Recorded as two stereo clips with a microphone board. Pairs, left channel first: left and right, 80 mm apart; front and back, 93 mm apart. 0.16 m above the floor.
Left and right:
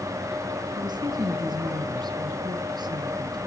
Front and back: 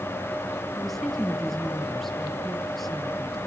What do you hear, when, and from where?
0.8 s a woman speaking: 90° right, 3 m